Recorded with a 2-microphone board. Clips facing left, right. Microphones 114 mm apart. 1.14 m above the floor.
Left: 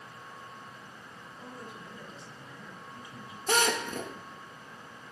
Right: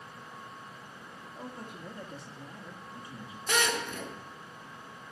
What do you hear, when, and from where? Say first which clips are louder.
1.4 s a man speaking: right 2 dB; 65° right (ahead or behind), 2 m; by 3.4 s 25° right (ahead or behind), 1.7 m
3.5 s a drill: left 3 dB; 40° left (ahead or behind), 1.9 m